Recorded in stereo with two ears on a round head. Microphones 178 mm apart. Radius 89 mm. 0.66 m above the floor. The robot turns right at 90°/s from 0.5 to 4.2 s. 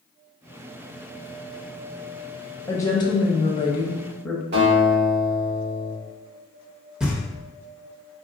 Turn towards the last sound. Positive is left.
turn(degrees=-5)  # may be behind; listen again after turning